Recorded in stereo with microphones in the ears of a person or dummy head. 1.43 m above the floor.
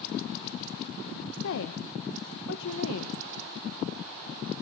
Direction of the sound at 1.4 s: 70° left (ahead or behind).